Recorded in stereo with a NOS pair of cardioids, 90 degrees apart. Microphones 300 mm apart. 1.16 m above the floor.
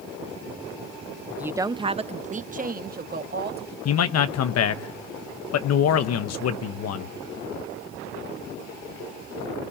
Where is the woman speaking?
Straight ahead, 0.5 m; by 3.8 s 35° right, 1.8 m.